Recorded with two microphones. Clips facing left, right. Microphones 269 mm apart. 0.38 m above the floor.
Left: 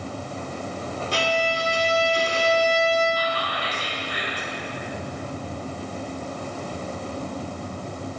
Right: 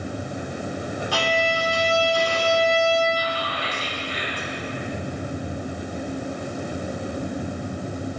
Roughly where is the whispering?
Left.